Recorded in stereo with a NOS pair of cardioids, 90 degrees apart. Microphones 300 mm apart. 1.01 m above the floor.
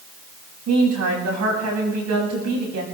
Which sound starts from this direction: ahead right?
A woman speaking, at 0.7 s.